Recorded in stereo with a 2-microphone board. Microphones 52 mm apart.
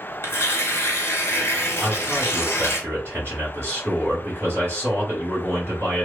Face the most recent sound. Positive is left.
turn(degrees=-35)  # may be behind; listen again after turning